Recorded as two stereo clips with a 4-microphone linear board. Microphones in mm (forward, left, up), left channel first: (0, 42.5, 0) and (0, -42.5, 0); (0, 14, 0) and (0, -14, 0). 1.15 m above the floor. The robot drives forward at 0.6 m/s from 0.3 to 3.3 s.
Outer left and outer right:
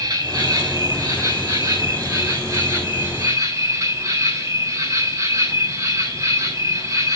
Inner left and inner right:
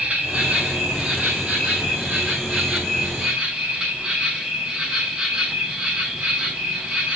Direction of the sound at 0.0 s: 50° right (ahead or behind).